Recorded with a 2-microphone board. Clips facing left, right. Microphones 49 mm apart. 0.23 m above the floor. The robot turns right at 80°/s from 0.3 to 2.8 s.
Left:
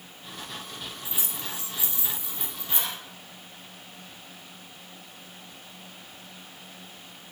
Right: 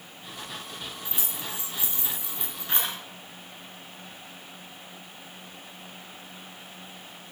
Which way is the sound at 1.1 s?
15° left (ahead or behind).